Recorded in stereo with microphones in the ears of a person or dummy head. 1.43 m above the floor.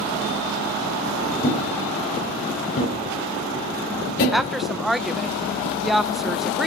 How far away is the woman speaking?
About 1.0 m.